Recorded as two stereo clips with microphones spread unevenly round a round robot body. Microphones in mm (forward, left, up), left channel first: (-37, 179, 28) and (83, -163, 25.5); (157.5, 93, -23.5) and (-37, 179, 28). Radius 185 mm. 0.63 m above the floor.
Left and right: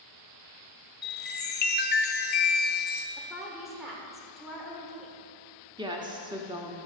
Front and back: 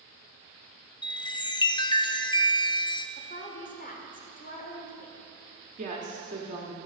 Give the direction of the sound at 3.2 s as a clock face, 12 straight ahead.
11 o'clock.